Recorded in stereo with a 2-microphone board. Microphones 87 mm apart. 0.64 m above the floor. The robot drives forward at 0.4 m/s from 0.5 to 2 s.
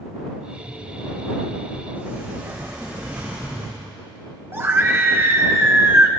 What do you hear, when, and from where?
1.9 s a sliding door: 20° right (ahead or behind), 4.5 m
4.5 s a scream: 25° right (ahead or behind), 0.9 m